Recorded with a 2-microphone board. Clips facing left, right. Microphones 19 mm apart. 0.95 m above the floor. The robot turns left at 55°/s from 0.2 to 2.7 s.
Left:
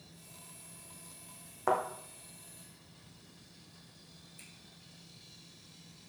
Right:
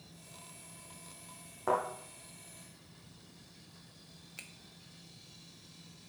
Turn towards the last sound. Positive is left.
turn(degrees=-65)  # may be behind; listen again after turning